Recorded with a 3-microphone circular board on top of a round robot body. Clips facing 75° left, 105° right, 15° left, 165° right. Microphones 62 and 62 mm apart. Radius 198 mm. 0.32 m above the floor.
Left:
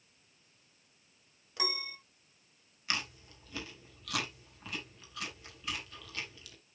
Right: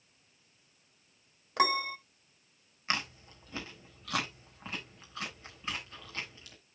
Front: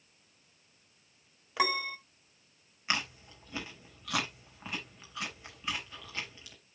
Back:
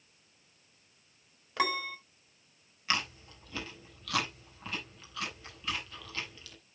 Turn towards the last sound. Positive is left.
turn(degrees=-55)